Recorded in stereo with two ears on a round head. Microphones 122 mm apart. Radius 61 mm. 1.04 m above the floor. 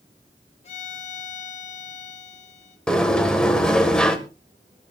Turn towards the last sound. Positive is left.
turn(degrees=5)  # may be behind; listen again after turning